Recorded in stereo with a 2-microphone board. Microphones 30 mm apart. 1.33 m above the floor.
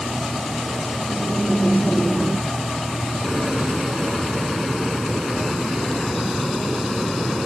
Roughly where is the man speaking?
No man speaking in this recording.